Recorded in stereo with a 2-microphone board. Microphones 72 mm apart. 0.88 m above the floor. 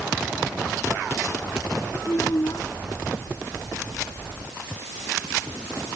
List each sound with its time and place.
2.0 s a child speaking: 55° left (ahead or behind)